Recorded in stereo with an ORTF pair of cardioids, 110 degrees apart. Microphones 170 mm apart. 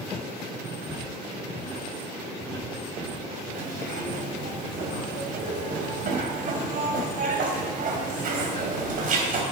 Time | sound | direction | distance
0.8 | footsteps | straight ahead | 6.5 m
3.5 | a zipper | 50° right | 3.5 m